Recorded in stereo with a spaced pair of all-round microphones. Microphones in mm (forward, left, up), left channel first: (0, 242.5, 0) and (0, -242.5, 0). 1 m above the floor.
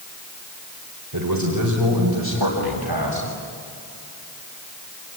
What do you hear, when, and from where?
1.1 s a man speaking: 40° right (ahead or behind), 4 m; by 3.3 s 50° right (ahead or behind), 6 m